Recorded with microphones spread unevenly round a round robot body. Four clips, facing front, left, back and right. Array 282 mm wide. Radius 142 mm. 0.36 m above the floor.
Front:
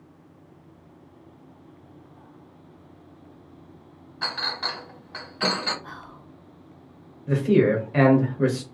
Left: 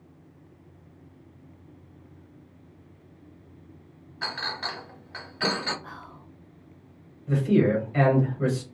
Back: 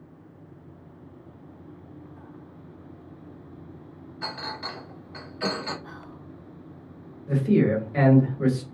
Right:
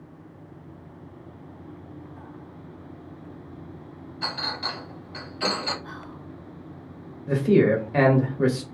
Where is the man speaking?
65° right, 1.1 m.